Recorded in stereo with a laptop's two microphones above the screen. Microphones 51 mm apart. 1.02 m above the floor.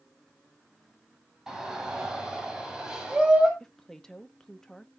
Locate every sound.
1.5 s a shout: 10° right (ahead or behind), 7.5 m; by 3.5 s 15° right (ahead or behind), 7 m
3.6 s a woman speaking: 10° left (ahead or behind), 1.4 m